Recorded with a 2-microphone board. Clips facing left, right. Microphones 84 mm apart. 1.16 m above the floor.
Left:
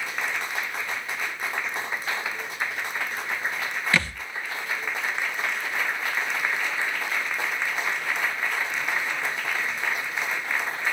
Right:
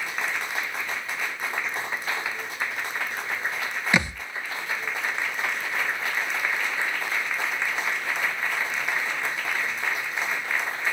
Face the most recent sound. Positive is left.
turn(degrees=-20)  # may be behind; listen again after turning